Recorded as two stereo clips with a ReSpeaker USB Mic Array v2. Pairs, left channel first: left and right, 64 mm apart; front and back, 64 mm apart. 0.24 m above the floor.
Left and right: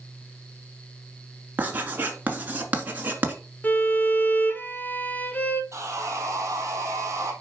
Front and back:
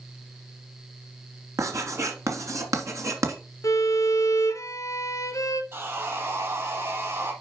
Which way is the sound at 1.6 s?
150° right.